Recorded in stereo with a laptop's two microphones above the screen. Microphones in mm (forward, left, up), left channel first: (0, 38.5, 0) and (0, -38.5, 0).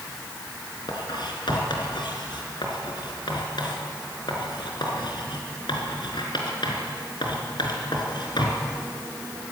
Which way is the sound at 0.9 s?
75° left (ahead or behind).